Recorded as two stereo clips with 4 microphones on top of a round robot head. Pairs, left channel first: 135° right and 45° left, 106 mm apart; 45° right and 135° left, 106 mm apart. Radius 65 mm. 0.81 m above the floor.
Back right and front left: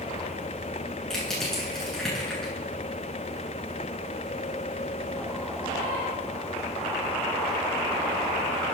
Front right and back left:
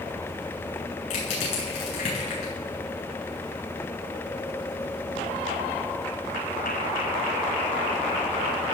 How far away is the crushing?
About 9.5 m.